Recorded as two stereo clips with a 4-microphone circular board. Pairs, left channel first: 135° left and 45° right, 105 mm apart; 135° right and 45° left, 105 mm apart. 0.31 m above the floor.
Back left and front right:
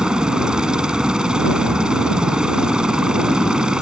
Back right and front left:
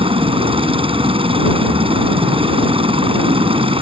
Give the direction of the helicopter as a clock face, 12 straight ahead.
11 o'clock.